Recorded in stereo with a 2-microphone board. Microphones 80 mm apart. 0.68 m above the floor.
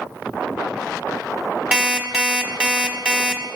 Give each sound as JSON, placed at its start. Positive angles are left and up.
{"t": 1.7, "sound": "an alarm clock", "side_deg": -15, "distance_m": 0.8}